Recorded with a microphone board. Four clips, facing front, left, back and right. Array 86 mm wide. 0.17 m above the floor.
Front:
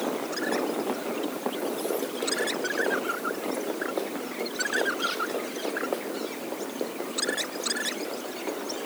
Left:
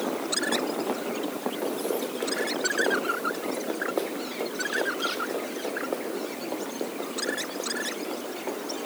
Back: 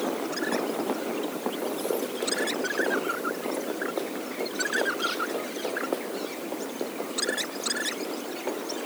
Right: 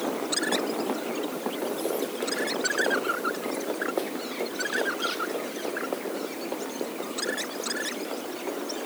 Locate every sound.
Only background noise.